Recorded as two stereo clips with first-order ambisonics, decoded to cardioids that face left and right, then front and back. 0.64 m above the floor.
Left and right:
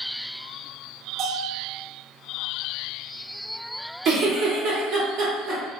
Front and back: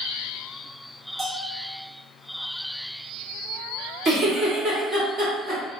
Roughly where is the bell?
Behind right.